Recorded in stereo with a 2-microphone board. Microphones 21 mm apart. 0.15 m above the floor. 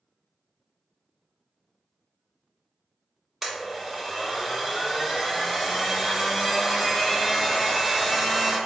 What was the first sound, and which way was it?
A blender, 5° right (ahead or behind).